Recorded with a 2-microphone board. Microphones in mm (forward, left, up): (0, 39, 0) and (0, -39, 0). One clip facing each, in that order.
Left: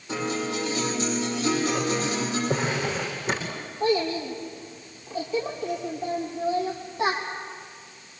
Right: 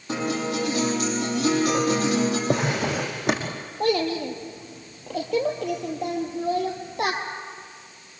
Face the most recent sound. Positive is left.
turn(degrees=-75)  # may be behind; listen again after turning